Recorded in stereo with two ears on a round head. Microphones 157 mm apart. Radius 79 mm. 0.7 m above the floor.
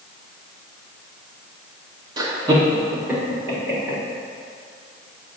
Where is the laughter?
25° right (ahead or behind), 0.9 m; by 4.0 s 10° right (ahead or behind), 3 m.